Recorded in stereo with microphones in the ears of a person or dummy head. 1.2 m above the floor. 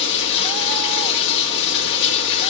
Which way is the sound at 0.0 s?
60° left (ahead or behind).